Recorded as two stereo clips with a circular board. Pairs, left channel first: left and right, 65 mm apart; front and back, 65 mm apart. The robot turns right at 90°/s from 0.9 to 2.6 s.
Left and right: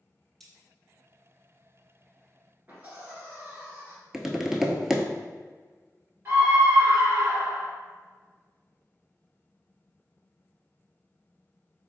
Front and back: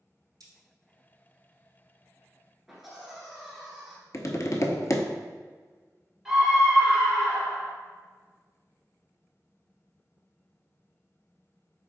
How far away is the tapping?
About 0.6 m.